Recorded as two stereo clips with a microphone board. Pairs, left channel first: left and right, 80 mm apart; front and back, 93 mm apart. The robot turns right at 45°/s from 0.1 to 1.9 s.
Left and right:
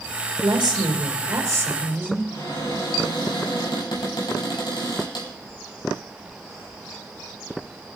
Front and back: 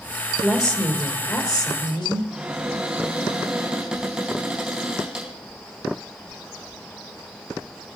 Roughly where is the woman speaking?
Right.